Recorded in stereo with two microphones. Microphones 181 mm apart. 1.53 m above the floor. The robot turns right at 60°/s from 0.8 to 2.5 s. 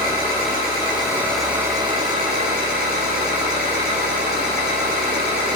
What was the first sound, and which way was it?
An engine running, 145° left.